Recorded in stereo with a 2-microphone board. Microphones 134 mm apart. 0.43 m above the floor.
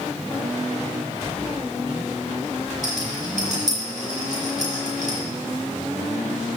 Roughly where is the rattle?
Right.